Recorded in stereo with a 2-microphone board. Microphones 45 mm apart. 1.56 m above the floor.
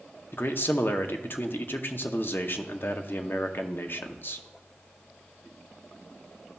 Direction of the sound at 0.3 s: 55° left (ahead or behind).